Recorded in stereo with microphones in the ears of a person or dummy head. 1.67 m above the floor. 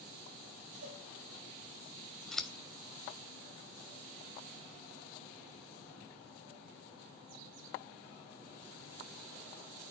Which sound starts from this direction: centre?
Scissors, at 2.3 s.